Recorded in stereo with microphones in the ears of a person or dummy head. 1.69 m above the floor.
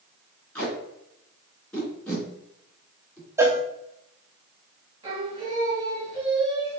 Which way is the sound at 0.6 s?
10° left (ahead or behind).